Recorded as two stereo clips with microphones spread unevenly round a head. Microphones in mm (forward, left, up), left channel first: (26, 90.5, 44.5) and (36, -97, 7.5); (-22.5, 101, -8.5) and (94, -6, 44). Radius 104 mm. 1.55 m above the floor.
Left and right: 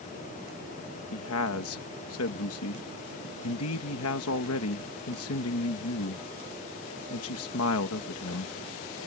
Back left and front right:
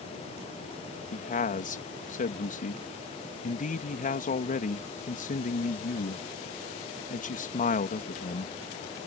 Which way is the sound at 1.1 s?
95° left.